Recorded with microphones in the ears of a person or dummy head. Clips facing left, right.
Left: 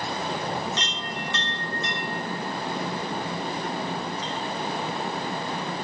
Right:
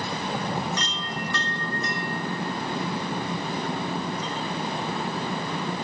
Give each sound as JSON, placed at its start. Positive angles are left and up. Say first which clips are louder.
{"t": 0.8, "sound": "a chime", "louder": "right 1 dB", "side_deg": 20, "distance_m": 2.5}